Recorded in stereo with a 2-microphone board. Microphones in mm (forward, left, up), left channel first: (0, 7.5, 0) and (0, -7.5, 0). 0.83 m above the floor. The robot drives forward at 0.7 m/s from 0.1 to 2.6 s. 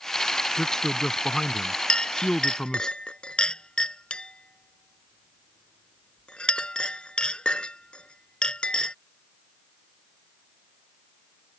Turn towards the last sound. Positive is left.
turn(degrees=85)